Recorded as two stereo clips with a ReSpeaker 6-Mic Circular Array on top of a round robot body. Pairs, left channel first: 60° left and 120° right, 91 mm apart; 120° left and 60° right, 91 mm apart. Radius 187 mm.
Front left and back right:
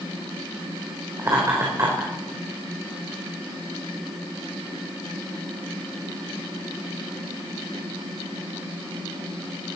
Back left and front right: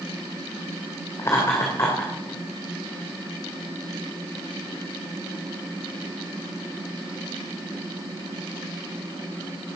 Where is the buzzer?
I don't hear a buzzer.